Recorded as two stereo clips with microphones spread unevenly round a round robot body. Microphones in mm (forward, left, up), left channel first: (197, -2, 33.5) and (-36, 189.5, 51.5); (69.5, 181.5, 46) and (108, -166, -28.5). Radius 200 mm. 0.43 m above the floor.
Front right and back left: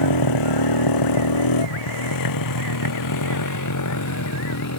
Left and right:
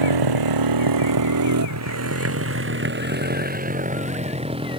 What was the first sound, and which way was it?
A motorcycle, 70° right.